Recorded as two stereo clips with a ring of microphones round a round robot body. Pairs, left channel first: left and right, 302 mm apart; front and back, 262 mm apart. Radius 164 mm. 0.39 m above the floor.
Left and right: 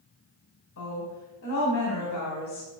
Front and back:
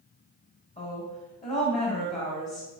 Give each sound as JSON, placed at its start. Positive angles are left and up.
{"t": 0.8, "sound": "a woman speaking", "azimuth_deg": 55, "distance_m": 2.0}